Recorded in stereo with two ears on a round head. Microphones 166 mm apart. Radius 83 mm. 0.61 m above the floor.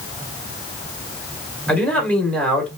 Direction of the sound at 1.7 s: 5° left (ahead or behind).